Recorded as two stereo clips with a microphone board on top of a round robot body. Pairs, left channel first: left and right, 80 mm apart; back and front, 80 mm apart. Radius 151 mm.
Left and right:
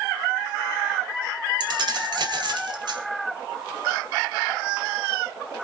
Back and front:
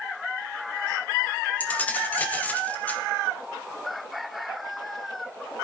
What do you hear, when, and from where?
1.6 s keys jangling: 110° right, 2.5 m